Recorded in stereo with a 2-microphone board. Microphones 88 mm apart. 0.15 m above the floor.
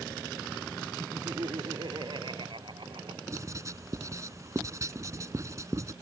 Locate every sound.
1.0 s laughter: 55° right (ahead or behind); by 3.2 s 70° right (ahead or behind)
3.3 s writing: 40° right (ahead or behind)